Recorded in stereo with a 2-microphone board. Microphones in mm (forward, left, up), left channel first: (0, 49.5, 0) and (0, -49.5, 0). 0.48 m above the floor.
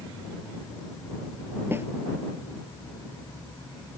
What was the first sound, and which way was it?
A snare drum, 25° right (ahead or behind).